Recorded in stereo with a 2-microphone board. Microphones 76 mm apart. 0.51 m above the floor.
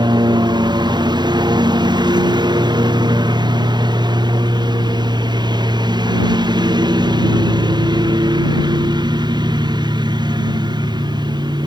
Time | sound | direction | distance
0.0 | a lawn mower | 80° right | ?